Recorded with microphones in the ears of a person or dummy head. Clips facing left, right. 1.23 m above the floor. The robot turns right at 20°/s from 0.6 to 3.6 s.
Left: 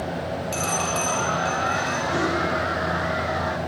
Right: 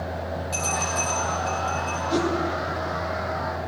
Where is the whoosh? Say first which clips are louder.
Right 2 dB; 30° right (ahead or behind), 1.9 m; by 2.3 s 25° right (ahead or behind), 1.9 m.